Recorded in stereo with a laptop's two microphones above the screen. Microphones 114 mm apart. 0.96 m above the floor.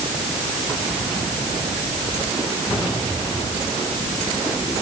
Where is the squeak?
No squeak in this recording.